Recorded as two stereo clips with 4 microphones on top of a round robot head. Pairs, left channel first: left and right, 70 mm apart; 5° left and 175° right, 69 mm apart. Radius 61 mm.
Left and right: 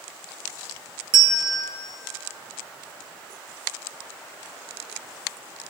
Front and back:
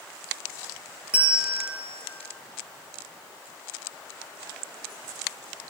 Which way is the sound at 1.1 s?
100° right.